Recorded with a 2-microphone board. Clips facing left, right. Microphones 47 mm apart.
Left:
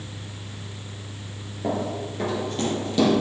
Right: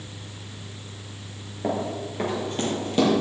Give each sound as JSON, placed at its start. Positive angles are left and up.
{"t": 1.6, "sound": "running footsteps", "side_deg": -25, "distance_m": 2.0}